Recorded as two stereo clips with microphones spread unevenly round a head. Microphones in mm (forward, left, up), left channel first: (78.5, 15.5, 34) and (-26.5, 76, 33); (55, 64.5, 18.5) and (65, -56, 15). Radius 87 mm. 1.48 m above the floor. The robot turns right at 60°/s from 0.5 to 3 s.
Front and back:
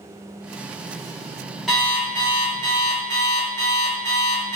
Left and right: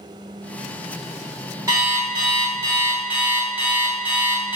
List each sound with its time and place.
1.7 s an alarm clock: 115° right, 0.7 m; by 4.6 s 35° right, 0.7 m